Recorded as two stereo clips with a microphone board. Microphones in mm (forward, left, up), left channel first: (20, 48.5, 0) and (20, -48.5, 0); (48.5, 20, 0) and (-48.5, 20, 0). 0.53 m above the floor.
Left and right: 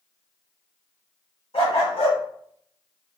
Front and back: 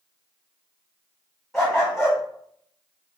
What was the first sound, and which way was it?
A dog barking, 85° left.